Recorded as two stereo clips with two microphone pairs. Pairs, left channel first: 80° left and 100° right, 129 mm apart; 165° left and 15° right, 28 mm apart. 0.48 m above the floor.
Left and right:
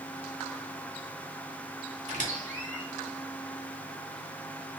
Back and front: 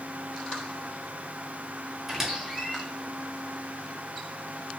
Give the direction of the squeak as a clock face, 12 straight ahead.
3 o'clock.